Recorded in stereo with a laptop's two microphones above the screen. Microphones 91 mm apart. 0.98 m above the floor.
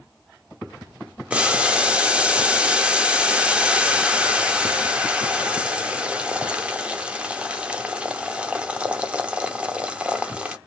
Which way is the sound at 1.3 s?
10° right (ahead or behind).